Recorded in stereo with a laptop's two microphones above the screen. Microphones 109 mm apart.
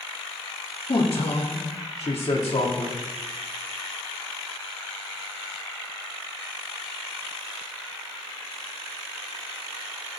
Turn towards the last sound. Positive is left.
turn(degrees=60)  # may be behind; listen again after turning